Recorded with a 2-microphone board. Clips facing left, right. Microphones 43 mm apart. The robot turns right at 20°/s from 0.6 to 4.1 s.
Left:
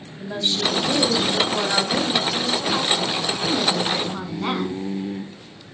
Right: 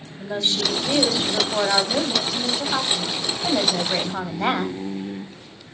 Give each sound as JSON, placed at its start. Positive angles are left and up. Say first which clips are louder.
{"t": 0.2, "sound": "a woman speaking", "louder": "even", "azimuth_deg": -165, "distance_m": 2.5}